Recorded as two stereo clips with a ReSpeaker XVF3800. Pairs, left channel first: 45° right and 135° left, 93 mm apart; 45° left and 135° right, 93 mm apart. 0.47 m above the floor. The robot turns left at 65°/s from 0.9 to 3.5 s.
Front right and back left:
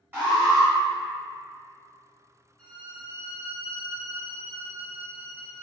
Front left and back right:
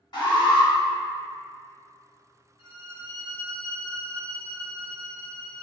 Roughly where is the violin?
Ahead left.